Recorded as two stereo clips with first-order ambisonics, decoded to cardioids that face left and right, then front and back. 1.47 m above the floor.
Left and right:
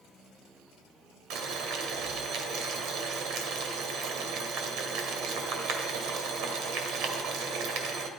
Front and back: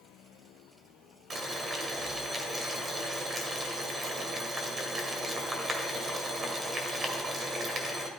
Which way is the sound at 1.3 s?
110° right.